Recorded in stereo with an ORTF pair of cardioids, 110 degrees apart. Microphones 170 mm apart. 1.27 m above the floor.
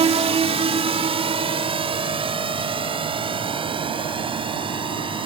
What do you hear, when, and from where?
0.0 s a drone: 35° right; by 5.3 s 30° right